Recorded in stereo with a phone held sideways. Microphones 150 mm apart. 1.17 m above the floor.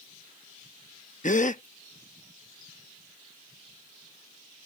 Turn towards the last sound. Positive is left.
turn(degrees=60)  # may be behind; listen again after turning